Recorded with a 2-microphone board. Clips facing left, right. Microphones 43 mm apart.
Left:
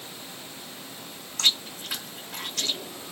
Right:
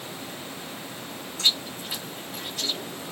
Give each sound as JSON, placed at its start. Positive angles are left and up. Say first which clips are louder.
{"t": 1.4, "sound": "chewing", "louder": "even", "side_deg": 85, "distance_m": 1.3}